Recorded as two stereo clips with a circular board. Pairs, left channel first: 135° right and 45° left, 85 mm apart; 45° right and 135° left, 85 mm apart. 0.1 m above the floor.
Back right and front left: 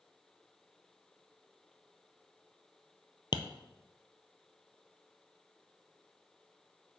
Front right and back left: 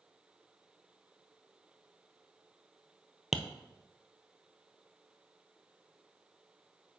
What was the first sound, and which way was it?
Tapping, 140° right.